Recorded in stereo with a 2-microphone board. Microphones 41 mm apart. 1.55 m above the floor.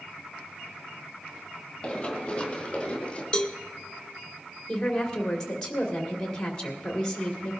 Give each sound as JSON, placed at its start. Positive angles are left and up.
{"t": 1.8, "sound": "running footsteps", "side_deg": 20, "distance_m": 3.0}
{"t": 3.3, "sound": "a cowbell", "side_deg": 20, "distance_m": 0.8}
{"t": 4.7, "sound": "a woman speaking", "side_deg": 15, "distance_m": 2.5}